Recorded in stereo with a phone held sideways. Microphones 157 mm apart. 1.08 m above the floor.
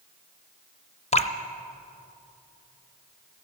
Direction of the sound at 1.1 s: 45° left (ahead or behind).